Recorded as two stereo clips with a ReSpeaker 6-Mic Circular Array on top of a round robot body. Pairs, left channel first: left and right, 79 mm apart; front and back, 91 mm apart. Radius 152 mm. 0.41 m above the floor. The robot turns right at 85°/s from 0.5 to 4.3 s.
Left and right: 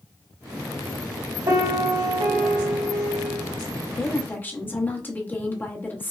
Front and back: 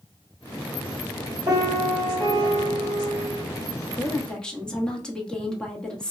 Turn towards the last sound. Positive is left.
turn(degrees=70)